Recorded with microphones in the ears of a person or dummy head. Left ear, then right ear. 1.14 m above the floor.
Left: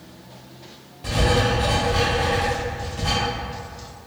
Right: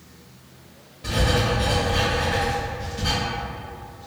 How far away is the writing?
About 1.0 m.